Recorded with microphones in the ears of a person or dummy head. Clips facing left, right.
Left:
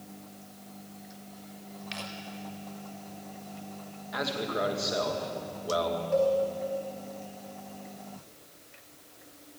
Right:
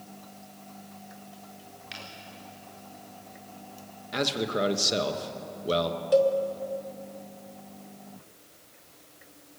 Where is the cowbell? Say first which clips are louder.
Right 4 dB; 45° right (ahead or behind), 1.1 m.